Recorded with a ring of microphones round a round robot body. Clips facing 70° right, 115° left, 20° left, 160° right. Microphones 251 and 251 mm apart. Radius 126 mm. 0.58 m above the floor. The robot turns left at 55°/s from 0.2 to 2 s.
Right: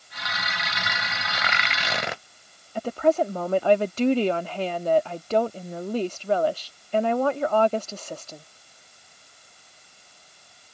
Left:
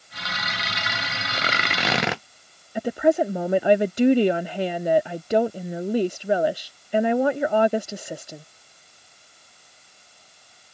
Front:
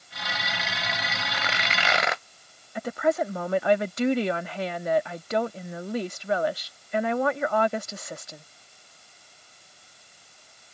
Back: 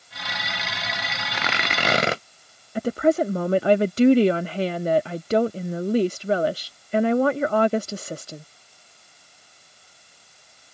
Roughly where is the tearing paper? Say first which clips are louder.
Left 6 dB, back 7 dB; behind.